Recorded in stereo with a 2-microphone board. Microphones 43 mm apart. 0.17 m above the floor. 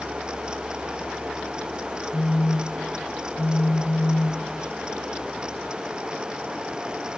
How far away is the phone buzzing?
About 3 m.